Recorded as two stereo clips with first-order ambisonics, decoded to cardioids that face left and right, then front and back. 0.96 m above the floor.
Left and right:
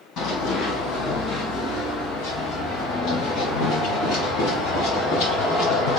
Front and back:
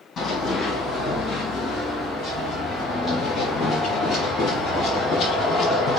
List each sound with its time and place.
0.2 s running footsteps: 65° left, 2.5 m